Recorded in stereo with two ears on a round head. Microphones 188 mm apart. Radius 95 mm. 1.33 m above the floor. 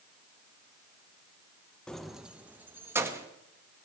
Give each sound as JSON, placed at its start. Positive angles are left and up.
{"t": 1.9, "sound": "keys jangling", "side_deg": 5, "distance_m": 0.7}